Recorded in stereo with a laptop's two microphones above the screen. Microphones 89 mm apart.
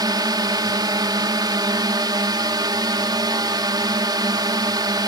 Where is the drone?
50° right (ahead or behind).